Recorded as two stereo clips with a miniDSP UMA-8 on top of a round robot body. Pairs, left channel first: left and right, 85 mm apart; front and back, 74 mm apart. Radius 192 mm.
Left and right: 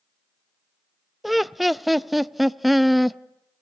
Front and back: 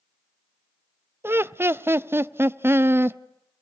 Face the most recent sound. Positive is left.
turn(degrees=180)